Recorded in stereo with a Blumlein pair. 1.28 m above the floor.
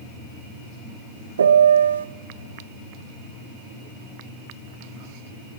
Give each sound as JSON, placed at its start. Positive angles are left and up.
{"t": 1.4, "sound": "a piano", "azimuth_deg": -70, "distance_m": 0.7}